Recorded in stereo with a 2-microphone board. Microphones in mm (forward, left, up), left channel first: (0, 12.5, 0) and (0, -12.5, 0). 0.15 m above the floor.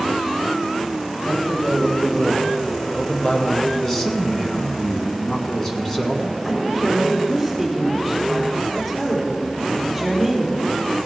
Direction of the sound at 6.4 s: 10° left (ahead or behind).